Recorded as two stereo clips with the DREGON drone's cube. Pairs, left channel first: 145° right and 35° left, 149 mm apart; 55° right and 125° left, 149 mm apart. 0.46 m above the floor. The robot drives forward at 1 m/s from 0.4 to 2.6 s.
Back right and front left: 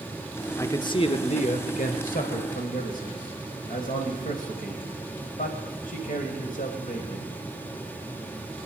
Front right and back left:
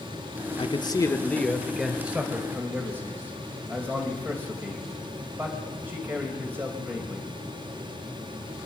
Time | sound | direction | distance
0.6 | a man speaking | 80° right | 1.1 m